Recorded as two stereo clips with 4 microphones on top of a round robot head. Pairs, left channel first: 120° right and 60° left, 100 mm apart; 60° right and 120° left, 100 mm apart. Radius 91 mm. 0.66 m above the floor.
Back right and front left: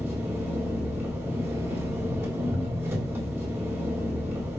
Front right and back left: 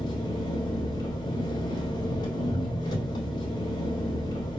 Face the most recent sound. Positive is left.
turn(degrees=-10)